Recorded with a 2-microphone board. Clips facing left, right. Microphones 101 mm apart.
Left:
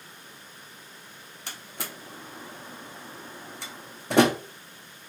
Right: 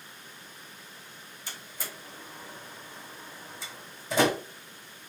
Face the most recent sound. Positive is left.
turn(degrees=65)  # may be behind; listen again after turning